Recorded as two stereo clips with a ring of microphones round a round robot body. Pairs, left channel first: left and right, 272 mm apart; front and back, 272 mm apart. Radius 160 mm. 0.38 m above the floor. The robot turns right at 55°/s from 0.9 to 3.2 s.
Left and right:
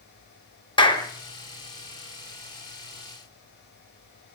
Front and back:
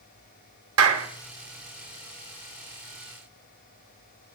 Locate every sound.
0.8 s a clap: 160° left, 1.7 m; by 1.1 s 170° left, 1.7 m